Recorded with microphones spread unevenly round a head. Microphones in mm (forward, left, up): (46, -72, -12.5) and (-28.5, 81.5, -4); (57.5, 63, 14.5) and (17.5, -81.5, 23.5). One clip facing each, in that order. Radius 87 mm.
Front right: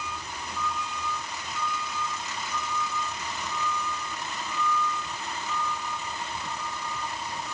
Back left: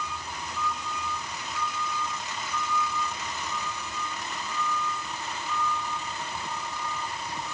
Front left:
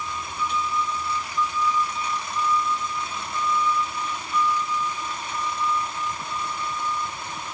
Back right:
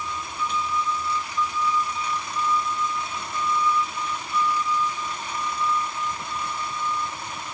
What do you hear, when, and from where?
Only background noise.